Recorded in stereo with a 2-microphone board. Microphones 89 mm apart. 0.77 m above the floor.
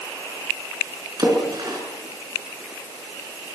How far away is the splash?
About 6 m.